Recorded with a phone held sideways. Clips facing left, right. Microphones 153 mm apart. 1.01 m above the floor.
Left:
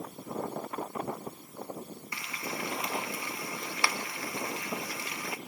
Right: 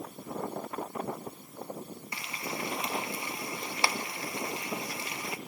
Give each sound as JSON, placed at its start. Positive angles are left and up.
{"t": 2.1, "sound": "frying", "side_deg": -25, "distance_m": 0.7}